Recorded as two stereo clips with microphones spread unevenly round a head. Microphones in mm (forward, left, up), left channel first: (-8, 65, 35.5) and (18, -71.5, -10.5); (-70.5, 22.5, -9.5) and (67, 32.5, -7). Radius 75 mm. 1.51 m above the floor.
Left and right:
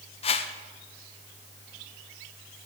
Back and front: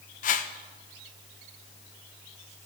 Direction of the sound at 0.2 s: 155° left.